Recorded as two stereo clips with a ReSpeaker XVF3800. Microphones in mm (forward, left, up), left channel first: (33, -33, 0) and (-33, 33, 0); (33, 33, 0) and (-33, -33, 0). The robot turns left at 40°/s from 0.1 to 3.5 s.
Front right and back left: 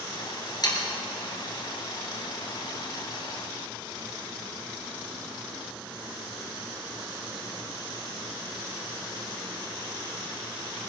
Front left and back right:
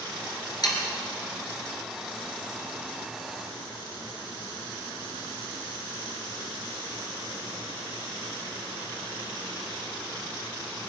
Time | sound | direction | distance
0.6 | sawing | straight ahead | 3 m